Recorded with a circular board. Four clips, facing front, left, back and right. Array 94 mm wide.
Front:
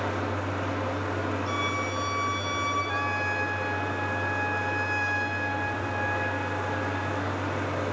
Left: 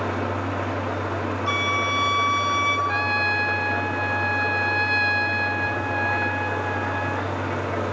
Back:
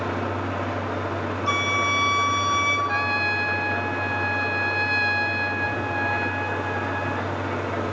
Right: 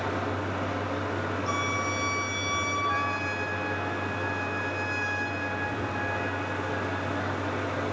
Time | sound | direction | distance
0.0 | an engine running | 115° left | 6 m
1.5 | a flute | 135° left | 2.5 m
2.9 | a trumpet | 130° left | 0.7 m